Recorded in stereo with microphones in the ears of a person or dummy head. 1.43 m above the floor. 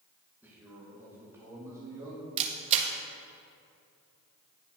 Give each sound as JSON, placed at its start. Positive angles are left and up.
{"t": 0.4, "sound": "a man speaking", "side_deg": -10, "distance_m": 1.5}
{"t": 2.4, "sound": "a camera shutter", "side_deg": -30, "distance_m": 0.9}